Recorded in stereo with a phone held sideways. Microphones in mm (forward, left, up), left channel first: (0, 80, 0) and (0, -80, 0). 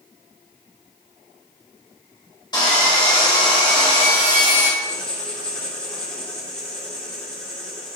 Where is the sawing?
25° left (ahead or behind), 3 m.